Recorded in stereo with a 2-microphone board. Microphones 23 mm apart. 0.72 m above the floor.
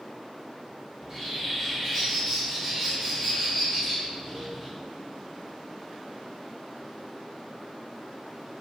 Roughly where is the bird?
Centre.